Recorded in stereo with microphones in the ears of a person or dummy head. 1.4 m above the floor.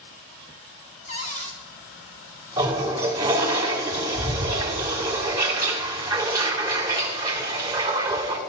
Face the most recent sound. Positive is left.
turn(degrees=-15)  # may be behind; listen again after turning